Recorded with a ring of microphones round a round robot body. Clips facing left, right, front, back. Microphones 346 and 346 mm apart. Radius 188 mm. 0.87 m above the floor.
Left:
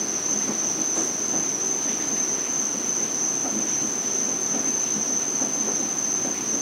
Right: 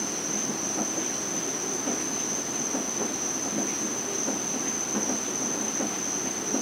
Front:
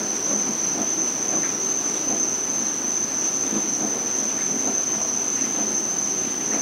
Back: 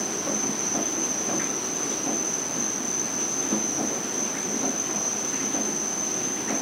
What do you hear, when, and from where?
0.0 s an insect: 50° left, 1.5 m